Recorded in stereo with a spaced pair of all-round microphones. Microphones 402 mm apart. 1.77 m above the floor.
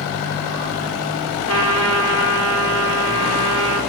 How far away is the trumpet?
About 5.5 m.